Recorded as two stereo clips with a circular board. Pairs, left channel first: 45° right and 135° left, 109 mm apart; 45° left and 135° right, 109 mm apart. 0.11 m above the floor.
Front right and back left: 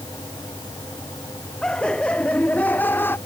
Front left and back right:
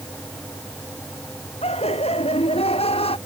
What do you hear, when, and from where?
1.6 s laughter: 35° left; by 3.2 s 25° left